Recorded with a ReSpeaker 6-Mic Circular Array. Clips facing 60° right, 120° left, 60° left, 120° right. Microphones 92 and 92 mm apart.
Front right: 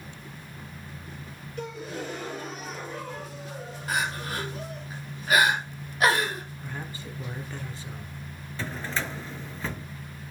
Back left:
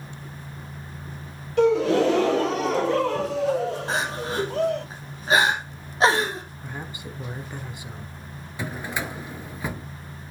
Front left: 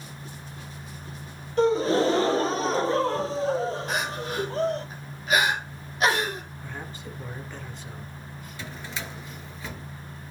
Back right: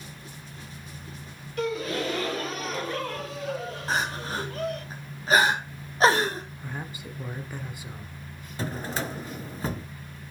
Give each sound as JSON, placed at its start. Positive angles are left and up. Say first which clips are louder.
{"t": 1.6, "sound": "a gasp", "louder": "back left 18 dB, front left 8 dB", "azimuth_deg": 120, "distance_m": 0.5}
{"t": 3.9, "sound": "crying", "louder": "back left 3 dB, back right 1 dB", "azimuth_deg": -175, "distance_m": 2.5}
{"t": 6.6, "sound": "a man speaking", "louder": "back left 1 dB, back right 1 dB", "azimuth_deg": 175, "distance_m": 1.1}
{"t": 8.6, "sound": "a drawer", "louder": "back left 2 dB, back right 7 dB", "azimuth_deg": -165, "distance_m": 0.7}